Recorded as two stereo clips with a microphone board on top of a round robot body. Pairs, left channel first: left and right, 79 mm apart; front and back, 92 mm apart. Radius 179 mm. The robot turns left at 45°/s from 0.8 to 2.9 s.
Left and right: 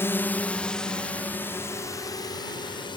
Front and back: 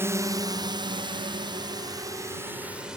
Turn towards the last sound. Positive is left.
turn(degrees=95)